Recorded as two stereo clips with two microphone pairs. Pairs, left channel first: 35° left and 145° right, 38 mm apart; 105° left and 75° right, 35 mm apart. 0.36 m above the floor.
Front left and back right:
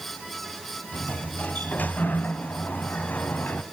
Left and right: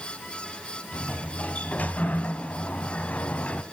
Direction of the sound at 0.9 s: 70° left.